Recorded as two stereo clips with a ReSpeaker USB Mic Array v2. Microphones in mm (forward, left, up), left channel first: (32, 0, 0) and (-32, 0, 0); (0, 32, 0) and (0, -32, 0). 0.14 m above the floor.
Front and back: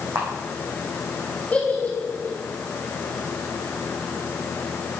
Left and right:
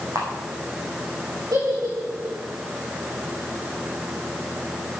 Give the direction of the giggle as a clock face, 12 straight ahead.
2 o'clock.